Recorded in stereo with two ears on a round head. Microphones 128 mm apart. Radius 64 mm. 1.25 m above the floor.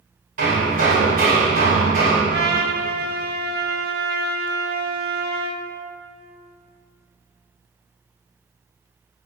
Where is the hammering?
60° right (ahead or behind), 5 m.